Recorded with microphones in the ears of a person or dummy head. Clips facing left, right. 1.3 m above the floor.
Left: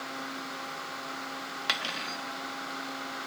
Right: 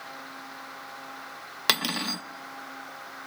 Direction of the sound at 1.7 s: 60° right (ahead or behind).